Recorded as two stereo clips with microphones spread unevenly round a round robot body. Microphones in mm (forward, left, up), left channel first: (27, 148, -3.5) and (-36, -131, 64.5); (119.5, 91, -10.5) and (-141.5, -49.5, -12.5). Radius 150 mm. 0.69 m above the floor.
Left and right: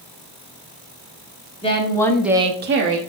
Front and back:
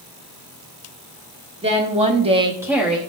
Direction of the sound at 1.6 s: 140° left.